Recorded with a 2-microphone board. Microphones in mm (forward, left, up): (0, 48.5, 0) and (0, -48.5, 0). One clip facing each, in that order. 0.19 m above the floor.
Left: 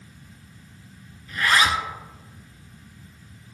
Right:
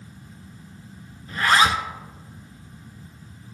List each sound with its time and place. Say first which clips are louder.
1.3 s a zipper: right 2 dB; 35° right (ahead or behind), 0.7 m